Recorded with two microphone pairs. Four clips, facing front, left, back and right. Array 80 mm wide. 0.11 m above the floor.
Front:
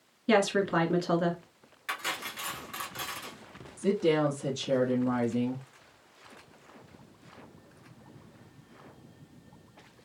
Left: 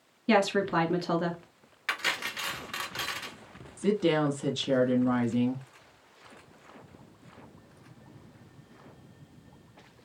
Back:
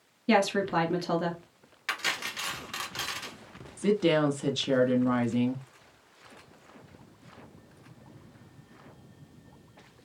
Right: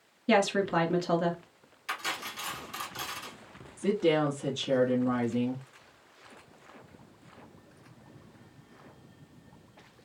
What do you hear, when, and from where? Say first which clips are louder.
0.3 s a woman speaking: even, even; 25° left, 1.1 m
1.9 s cutlery clinking: left 4 dB, back 2 dB; 105° left, 1.0 m
3.8 s a woman speaking: even, back 1 dB; 165° left, 1.1 m